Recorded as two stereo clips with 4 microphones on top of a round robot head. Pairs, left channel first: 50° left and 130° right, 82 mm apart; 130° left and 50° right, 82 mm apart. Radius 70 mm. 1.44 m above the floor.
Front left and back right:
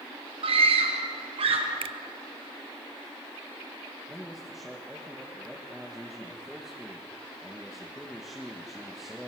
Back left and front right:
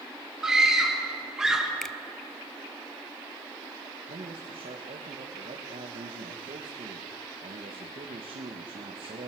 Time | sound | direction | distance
0.4 | a scream | 130° right | 4.5 m
1.8 | a finger snap | 145° right | 0.5 m
4.1 | a man speaking | 45° right | 2 m